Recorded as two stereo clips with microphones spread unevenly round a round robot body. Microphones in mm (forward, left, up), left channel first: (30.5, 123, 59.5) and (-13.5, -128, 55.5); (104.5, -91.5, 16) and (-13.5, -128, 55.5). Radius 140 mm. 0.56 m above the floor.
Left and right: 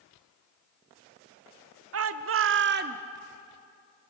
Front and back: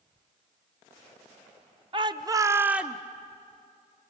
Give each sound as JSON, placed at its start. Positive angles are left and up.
{"t": 1.9, "sound": "a shout", "azimuth_deg": -105, "distance_m": 1.2}